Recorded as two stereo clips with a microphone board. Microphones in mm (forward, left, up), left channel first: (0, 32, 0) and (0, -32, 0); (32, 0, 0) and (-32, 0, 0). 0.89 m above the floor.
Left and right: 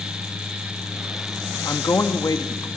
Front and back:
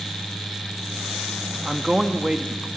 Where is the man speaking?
100° left, 1.6 m.